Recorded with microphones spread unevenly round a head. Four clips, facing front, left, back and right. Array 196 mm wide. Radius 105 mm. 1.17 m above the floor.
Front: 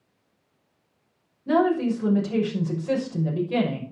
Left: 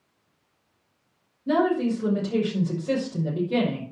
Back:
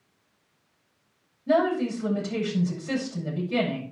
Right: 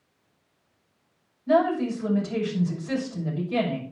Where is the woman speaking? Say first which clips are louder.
Even, front 2 dB; 55° left, 6 m.